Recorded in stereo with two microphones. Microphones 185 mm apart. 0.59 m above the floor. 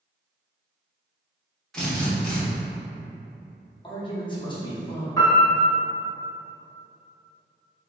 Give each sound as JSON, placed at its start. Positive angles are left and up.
{"t": 1.7, "sound": "a drill", "side_deg": 5, "distance_m": 0.9}
{"t": 3.8, "sound": "a man speaking", "side_deg": 25, "distance_m": 0.7}
{"t": 5.2, "sound": "a piano", "side_deg": 20, "distance_m": 1.0}